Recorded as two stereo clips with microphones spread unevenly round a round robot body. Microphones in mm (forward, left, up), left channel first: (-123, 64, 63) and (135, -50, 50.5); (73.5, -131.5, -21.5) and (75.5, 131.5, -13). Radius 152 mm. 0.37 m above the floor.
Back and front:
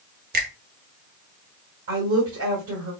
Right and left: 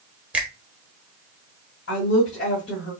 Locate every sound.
0.3 s a finger snap: 5° left, 1.2 m
1.9 s a woman speaking: 55° right, 2.5 m